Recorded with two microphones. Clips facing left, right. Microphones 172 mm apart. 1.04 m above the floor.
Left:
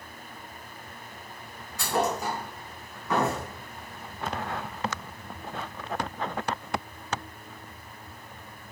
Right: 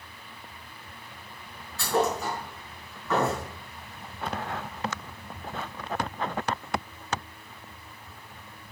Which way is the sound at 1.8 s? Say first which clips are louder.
Right 1 dB; 15° left (ahead or behind).